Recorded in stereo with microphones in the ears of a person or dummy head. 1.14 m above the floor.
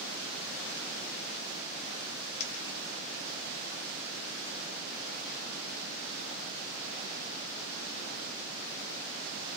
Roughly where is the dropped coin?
Left.